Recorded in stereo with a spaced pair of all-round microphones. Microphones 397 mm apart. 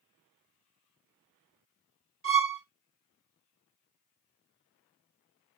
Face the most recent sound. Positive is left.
turn(degrees=-30)  # may be behind; listen again after turning